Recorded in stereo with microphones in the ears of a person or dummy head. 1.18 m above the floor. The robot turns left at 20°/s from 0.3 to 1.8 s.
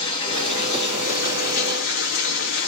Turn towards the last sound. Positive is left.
turn(degrees=125)